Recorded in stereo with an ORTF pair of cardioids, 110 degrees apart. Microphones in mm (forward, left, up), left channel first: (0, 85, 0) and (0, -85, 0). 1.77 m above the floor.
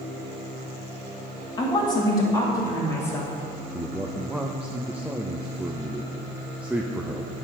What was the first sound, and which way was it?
A woman speaking, 30° left.